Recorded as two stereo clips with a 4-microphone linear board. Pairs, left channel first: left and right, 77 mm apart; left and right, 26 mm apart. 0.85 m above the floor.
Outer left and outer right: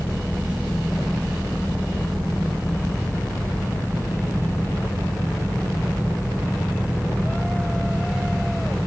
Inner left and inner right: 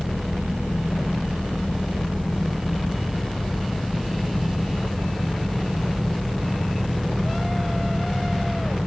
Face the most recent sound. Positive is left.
No sound to turn to.